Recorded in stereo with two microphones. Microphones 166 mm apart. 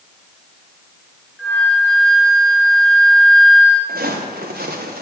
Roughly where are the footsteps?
Right.